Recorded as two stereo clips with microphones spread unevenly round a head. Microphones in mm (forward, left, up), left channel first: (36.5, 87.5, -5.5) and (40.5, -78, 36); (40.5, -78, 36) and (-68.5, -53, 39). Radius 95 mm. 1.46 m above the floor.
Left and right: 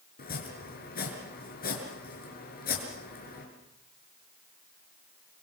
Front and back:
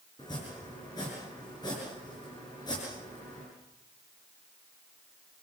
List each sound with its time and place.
0.2 s chopping: 55° left, 5.5 m